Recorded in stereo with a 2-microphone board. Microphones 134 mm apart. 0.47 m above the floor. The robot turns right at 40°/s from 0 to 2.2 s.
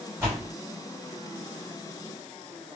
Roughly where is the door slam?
Right.